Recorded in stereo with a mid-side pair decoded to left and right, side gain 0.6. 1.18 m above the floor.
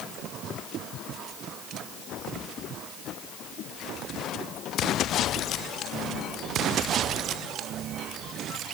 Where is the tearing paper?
No tearing paper in this recording.